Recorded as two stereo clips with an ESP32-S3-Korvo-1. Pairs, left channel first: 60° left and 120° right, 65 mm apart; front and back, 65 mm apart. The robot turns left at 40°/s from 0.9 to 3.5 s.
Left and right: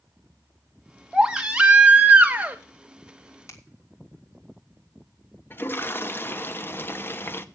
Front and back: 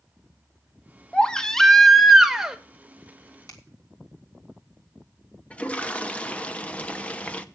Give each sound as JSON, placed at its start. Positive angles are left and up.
{"t": 1.1, "sound": "a baby crying", "azimuth_deg": -55, "distance_m": 0.9}
{"t": 3.5, "sound": "a finger snap", "azimuth_deg": 20, "distance_m": 2.0}
{"t": 5.5, "sound": "a toilet flushing", "azimuth_deg": 50, "distance_m": 0.6}